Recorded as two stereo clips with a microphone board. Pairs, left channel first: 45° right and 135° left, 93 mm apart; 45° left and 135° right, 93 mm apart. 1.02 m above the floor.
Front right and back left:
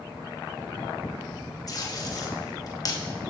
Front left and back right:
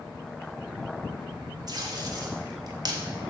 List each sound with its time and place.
1.7 s tape being pulled: 95° right, 0.9 m